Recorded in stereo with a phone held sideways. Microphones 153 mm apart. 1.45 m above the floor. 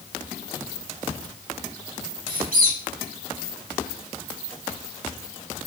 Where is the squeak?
70° right (ahead or behind), 1.4 m.